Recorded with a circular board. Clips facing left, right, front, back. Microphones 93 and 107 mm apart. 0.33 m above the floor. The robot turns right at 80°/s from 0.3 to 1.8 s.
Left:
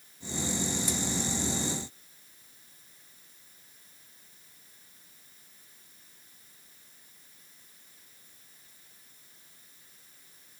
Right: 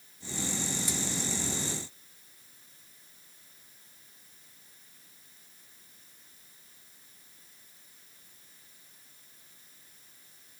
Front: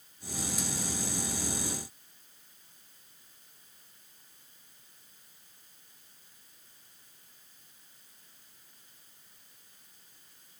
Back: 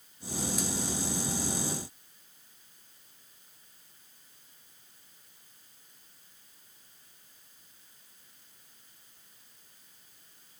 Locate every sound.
Only background noise.